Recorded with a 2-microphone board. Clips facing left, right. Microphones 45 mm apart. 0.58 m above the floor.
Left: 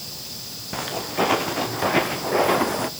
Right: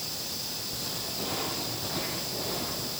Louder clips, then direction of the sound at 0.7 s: Left 15 dB; 65° left (ahead or behind).